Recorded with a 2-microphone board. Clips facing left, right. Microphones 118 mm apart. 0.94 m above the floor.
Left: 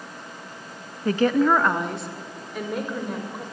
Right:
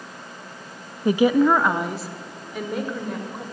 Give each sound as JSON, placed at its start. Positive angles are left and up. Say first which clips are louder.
{"t": 1.1, "sound": "a woman speaking", "louder": "right 2 dB", "side_deg": -15, "distance_m": 0.8}